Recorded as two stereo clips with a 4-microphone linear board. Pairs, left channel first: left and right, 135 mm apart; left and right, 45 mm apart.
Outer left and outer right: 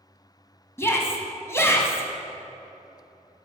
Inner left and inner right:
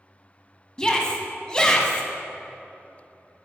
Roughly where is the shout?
Centre.